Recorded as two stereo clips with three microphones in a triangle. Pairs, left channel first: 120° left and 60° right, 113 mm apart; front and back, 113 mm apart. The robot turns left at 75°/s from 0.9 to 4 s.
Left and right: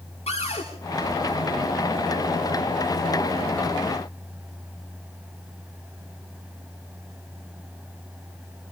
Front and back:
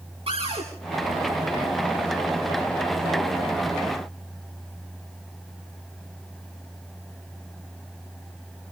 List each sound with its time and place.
0.3 s a cupboard door: 150° left, 9.5 m